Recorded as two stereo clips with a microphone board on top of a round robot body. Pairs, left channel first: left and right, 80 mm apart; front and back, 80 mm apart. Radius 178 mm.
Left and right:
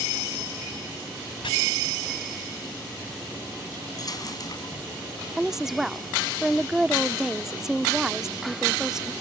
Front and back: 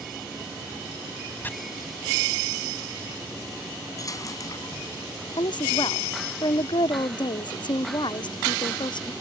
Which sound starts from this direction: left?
Chopping, at 1.4 s.